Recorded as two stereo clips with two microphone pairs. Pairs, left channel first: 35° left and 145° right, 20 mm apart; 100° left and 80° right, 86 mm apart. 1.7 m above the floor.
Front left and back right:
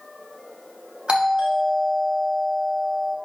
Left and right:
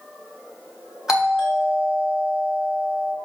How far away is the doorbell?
About 3.5 m.